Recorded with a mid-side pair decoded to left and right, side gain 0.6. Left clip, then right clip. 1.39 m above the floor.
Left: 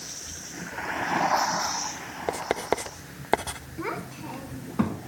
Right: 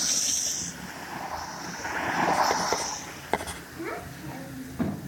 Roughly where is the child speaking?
Ahead left.